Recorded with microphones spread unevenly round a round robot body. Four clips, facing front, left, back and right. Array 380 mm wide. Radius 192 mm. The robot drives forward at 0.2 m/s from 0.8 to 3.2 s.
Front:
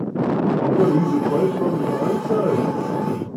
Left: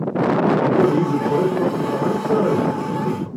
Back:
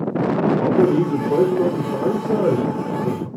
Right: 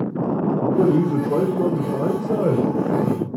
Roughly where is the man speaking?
Behind right.